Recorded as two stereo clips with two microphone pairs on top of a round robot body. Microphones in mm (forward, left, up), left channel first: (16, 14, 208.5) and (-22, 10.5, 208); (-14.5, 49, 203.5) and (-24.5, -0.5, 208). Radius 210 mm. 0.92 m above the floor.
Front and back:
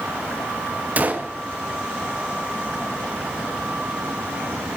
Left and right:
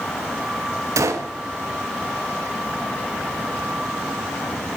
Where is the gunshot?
125° right, 1.0 m.